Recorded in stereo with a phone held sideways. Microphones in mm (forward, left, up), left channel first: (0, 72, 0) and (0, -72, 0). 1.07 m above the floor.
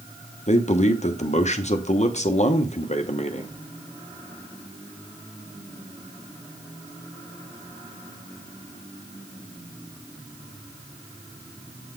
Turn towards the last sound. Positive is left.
turn(degrees=50)  # may be behind; listen again after turning